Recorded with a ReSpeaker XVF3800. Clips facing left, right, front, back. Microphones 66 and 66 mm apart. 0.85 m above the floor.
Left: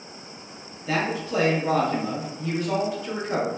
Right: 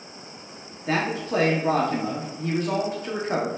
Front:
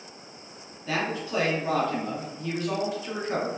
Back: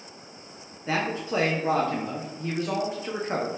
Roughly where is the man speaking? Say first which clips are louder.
Right 1 dB, back 2 dB; behind right.